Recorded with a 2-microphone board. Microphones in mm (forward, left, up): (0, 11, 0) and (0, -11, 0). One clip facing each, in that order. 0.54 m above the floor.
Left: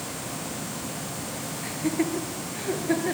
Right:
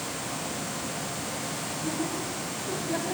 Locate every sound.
1.6 s laughter: 85° left, 8 m